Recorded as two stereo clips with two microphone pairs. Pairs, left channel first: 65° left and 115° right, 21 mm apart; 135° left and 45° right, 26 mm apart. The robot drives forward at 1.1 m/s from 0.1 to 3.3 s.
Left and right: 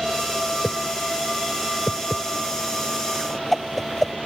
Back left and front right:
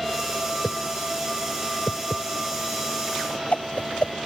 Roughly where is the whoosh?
Behind left.